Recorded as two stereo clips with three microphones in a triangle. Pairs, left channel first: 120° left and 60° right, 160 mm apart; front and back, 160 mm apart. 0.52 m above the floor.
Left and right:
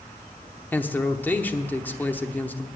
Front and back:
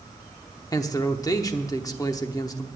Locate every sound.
0.7 s a man speaking: 50° left, 0.8 m